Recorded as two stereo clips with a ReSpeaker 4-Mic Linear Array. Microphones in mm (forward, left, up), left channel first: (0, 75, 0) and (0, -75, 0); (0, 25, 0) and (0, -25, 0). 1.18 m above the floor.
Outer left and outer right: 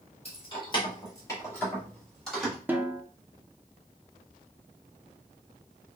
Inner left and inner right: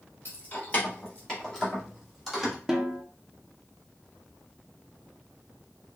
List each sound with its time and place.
0.2 s keys jangling: 45° left (ahead or behind), 1.5 m; by 2.5 s centre (ahead or behind), 2.0 m
2.7 s a snare drum: 10° right (ahead or behind), 0.6 m